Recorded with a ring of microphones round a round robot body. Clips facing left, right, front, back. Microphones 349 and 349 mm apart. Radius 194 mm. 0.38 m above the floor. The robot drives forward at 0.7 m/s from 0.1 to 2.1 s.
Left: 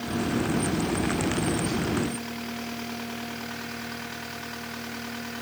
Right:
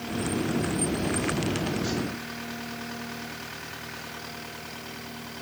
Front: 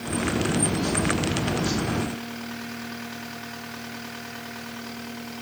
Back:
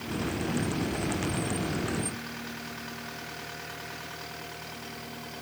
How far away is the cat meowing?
I don't hear a cat meowing.